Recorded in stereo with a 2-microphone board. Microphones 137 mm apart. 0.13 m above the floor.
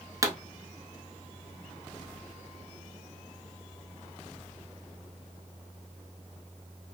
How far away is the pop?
About 0.7 m.